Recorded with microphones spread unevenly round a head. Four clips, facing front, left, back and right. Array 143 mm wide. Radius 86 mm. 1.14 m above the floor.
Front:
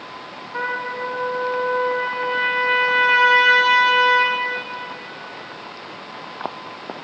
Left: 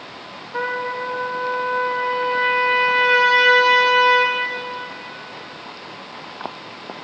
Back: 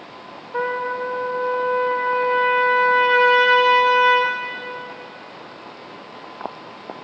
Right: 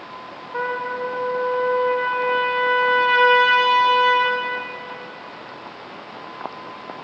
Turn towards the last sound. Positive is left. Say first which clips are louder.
# even, back 3 dB
turn(degrees=180)